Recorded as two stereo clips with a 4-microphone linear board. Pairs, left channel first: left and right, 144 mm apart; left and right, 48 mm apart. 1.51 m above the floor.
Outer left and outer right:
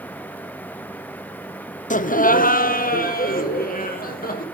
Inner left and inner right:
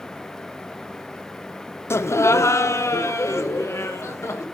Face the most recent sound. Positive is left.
turn(degrees=80)